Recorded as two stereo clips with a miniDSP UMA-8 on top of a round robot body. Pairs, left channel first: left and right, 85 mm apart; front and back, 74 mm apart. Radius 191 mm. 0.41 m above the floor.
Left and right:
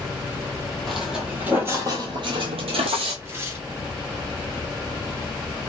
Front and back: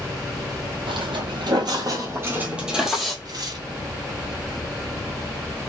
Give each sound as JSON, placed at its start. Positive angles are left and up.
{"t": 0.9, "sound": "footsteps", "azimuth_deg": 180, "distance_m": 1.1}
{"t": 3.2, "sound": "tearing paper", "azimuth_deg": -150, "distance_m": 2.0}